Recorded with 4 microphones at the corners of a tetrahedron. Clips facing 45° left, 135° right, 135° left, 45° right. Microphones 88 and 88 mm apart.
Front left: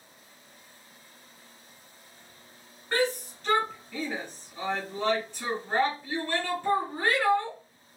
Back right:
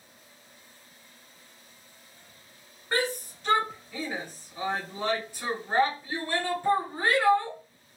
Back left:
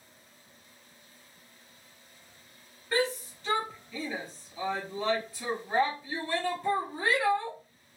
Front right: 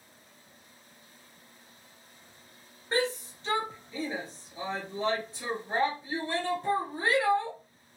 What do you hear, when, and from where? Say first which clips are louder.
2.9 s a shout: front left 2 dB, even; 70° right, 1.5 m